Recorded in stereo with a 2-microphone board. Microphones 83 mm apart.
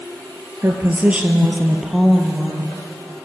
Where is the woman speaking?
30° right (ahead or behind), 2.5 m; by 2.8 s 10° left (ahead or behind), 3.5 m.